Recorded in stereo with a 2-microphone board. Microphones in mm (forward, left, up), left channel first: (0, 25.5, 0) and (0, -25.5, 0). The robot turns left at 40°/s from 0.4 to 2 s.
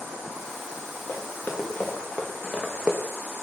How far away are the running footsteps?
About 2.5 m.